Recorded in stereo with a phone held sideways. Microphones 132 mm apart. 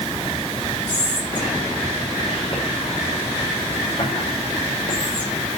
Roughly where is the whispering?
Left.